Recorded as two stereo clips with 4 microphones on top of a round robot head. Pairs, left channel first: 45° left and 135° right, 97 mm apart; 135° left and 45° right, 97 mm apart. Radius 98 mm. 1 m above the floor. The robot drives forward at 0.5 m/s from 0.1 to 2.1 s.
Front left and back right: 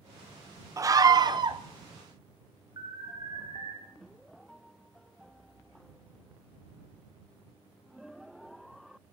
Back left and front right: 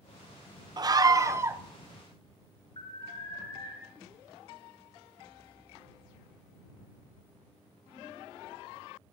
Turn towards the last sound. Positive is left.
turn(degrees=170)